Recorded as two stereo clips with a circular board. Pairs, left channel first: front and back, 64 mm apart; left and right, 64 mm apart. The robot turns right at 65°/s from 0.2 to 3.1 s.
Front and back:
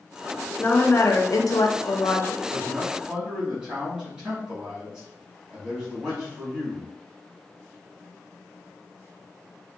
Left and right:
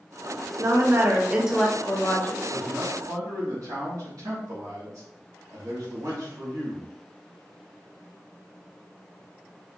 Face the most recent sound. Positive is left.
turn(degrees=-105)